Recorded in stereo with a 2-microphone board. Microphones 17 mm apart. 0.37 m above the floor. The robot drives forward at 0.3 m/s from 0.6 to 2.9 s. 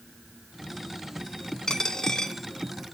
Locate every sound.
1.7 s a dropped coin: 50° left (ahead or behind), 0.8 m; by 2.3 s 40° left (ahead or behind), 0.9 m